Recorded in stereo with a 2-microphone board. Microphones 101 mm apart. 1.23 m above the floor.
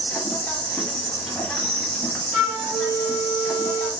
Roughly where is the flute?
Right.